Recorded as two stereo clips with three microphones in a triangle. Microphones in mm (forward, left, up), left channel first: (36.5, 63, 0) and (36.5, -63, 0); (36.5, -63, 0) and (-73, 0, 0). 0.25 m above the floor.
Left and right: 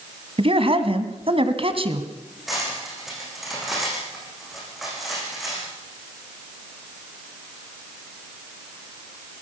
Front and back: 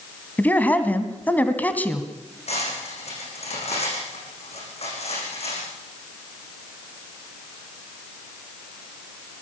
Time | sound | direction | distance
0.4 | a man speaking | 105° right | 1.9 m
2.5 | cutlery clinking | straight ahead | 8.5 m